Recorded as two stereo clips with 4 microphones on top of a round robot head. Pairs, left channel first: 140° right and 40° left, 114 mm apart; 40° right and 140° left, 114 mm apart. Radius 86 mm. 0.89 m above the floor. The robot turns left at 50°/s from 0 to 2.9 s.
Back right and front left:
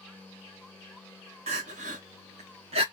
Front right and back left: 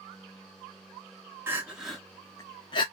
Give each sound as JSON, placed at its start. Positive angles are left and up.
{"t": 1.5, "sound": "crying", "azimuth_deg": 70, "distance_m": 0.6}